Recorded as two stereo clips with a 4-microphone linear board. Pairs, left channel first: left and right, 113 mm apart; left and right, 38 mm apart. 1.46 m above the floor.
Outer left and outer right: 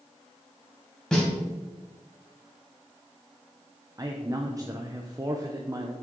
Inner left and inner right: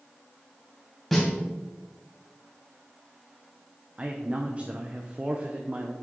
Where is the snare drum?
5° left (ahead or behind), 3 m.